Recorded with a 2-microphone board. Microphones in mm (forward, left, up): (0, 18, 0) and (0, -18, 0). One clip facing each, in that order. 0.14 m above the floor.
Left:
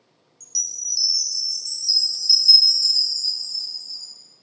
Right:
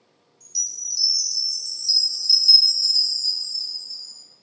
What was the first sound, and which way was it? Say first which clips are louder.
A chime: left 1 dB; 30° right (ahead or behind).